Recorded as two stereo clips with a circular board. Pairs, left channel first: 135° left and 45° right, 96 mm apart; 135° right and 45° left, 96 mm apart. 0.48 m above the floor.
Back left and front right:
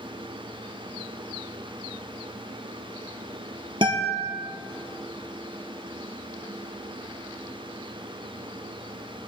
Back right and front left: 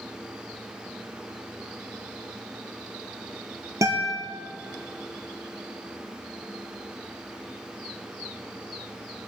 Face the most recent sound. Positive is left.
turn(degrees=-10)